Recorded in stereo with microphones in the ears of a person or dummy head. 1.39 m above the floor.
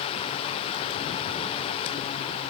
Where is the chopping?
No chopping in this recording.